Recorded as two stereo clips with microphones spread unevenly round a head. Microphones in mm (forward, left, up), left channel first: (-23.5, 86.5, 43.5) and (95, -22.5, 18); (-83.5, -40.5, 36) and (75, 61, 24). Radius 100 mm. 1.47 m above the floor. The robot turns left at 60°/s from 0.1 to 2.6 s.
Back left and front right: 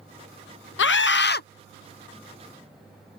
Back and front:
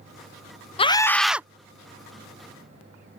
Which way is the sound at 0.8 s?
150° left.